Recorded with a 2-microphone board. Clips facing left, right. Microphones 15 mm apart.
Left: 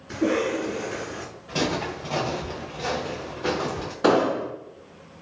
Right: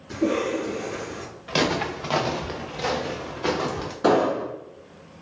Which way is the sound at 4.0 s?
25° left (ahead or behind).